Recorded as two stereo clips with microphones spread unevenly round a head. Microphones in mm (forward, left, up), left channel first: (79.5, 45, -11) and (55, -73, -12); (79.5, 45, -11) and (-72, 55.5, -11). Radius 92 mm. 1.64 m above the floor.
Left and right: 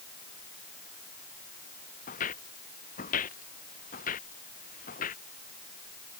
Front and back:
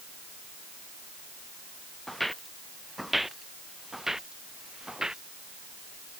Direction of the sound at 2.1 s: 85° left.